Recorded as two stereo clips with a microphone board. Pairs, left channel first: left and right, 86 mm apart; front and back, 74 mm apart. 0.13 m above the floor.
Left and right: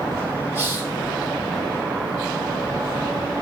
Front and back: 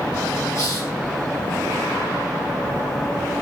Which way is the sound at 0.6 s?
35° left.